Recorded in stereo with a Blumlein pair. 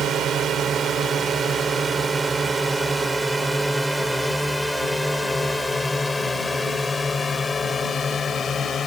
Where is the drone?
25° right; by 8.9 s 20° left.